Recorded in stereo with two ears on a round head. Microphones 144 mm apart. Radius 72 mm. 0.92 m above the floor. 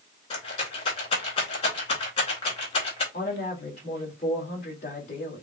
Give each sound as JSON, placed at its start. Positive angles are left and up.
{"t": 0.3, "sound": "a rattle", "side_deg": 35, "distance_m": 2.5}
{"t": 3.1, "sound": "a woman speaking", "side_deg": 45, "distance_m": 2.0}